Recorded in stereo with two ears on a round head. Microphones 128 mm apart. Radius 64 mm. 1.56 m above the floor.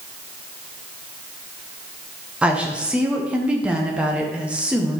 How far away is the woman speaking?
About 1.0 m.